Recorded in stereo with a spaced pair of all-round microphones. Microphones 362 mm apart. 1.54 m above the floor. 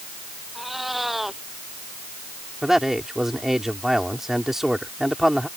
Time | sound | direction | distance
0.6 | a cat meowing | centre (ahead or behind) | ?
2.6 | a man speaking | centre (ahead or behind) | ?